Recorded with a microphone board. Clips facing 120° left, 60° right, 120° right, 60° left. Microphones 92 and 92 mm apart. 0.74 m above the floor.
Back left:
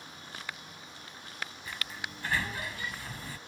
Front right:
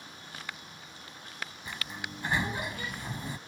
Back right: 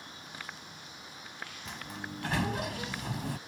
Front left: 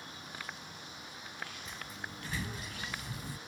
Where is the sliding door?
130° right.